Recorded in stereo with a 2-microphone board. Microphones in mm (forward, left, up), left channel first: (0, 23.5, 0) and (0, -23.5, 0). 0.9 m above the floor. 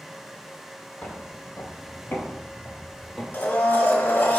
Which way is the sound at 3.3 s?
40° left (ahead or behind).